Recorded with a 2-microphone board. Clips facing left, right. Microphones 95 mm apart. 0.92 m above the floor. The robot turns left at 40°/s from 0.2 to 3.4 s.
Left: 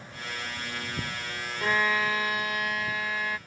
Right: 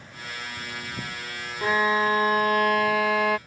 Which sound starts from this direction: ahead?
A violin, at 1.6 s.